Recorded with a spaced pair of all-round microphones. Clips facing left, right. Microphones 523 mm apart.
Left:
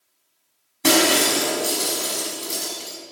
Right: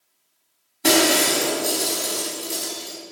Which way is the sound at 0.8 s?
25° left (ahead or behind).